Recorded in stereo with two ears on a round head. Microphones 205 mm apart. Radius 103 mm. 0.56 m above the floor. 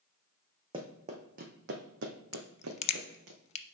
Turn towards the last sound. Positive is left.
turn(degrees=30)  # may be behind; listen again after turning